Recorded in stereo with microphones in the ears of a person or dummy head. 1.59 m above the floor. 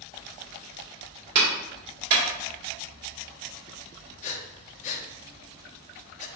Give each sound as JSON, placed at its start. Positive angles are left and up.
{"t": 1.4, "sound": "a clap", "side_deg": -55, "distance_m": 1.9}
{"t": 4.2, "sound": "breathing", "side_deg": 40, "distance_m": 0.6}